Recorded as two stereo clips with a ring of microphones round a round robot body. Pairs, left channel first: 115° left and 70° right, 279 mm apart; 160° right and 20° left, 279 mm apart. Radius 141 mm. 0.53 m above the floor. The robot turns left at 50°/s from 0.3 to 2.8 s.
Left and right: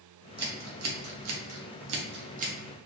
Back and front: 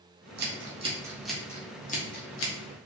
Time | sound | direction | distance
0.4 | scissors | 25° right | 0.8 m